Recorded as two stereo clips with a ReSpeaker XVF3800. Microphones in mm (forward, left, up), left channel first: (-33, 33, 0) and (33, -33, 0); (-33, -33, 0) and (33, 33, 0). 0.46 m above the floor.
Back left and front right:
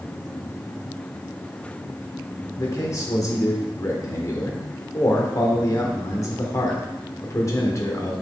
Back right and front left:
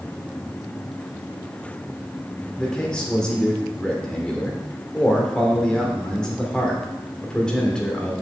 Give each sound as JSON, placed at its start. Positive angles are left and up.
{"t": 2.6, "sound": "a man speaking", "azimuth_deg": 150, "distance_m": 1.3}